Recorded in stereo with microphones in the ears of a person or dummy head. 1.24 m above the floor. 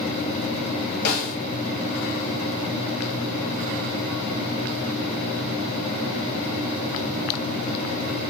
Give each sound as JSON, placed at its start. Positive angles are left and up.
{"t": 1.1, "sound": "a snare drum", "side_deg": 55, "distance_m": 0.9}